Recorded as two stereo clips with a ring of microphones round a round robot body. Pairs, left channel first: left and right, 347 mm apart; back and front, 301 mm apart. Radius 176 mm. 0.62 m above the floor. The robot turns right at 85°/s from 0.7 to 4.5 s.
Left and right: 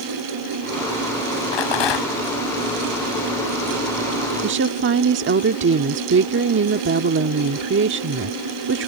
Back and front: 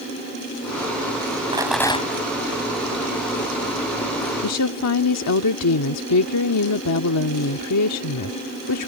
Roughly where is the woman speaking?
Behind right.